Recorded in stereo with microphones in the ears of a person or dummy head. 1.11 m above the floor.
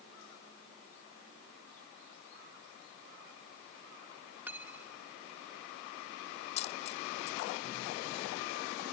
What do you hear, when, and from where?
4.5 s cutlery clinking: 10° right (ahead or behind)
6.6 s a dropped coin: 40° left (ahead or behind)